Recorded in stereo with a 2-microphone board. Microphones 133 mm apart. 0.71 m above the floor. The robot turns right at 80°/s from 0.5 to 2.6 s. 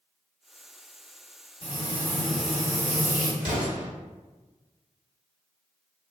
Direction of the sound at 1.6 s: 125° left.